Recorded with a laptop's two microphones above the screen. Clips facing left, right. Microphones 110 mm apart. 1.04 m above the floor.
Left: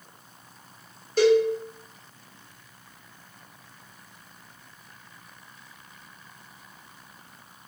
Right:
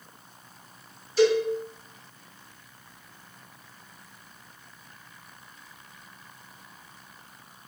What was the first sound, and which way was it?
A cowbell, 55° left (ahead or behind).